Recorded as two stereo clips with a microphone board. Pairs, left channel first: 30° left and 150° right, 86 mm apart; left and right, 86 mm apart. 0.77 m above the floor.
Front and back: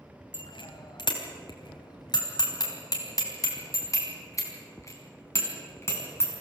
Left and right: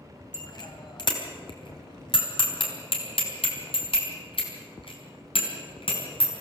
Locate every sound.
0.3 s a bicycle bell: 50° left, 3 m; by 6.4 s 90° left, 5 m